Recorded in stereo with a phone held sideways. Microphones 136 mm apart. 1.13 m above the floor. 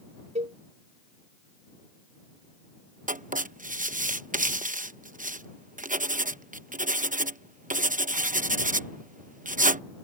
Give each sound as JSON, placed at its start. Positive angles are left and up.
{"t": 0.3, "sound": "a cowbell", "side_deg": -55}
{"t": 3.1, "sound": "writing", "side_deg": -75}